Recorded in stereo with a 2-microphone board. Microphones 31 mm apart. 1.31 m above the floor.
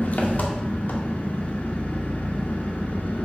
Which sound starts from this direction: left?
An engine running, at 0.0 s.